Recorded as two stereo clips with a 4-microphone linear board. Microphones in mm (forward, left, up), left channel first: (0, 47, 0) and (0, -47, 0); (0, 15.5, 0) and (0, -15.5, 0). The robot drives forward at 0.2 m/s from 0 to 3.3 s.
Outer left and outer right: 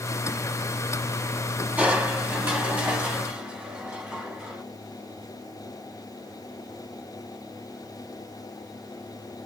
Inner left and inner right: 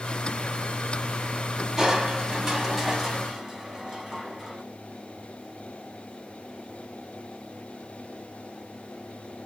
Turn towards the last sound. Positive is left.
turn(degrees=-15)  # may be behind; listen again after turning